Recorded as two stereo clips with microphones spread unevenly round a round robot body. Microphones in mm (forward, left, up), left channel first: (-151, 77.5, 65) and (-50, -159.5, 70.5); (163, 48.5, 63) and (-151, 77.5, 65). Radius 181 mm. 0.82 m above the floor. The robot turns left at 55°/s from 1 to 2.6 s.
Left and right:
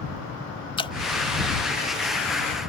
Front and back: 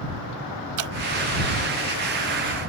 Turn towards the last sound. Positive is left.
turn(degrees=95)